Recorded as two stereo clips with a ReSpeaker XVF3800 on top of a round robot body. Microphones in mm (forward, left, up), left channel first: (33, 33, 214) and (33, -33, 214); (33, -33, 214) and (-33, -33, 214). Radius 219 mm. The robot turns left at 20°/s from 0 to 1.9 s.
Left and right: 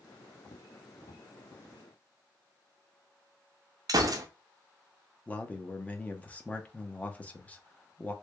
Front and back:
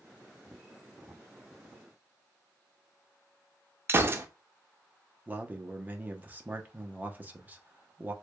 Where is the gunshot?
120° right, 0.5 m.